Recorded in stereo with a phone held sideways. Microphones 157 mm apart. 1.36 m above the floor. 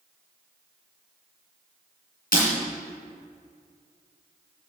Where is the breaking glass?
70° left (ahead or behind), 3 m.